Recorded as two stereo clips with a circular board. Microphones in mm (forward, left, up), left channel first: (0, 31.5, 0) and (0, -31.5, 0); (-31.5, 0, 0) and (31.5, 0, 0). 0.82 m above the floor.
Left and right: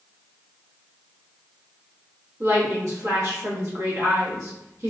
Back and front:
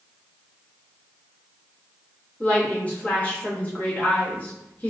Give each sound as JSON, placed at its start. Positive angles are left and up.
{"t": 2.4, "sound": "a woman speaking", "azimuth_deg": -115, "distance_m": 1.0}